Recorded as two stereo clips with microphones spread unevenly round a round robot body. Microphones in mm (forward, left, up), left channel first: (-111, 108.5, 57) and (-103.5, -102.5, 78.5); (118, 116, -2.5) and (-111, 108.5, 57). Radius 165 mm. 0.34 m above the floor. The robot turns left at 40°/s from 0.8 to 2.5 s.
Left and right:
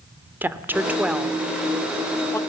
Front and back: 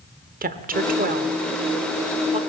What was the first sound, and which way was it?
A woman speaking, 170° right.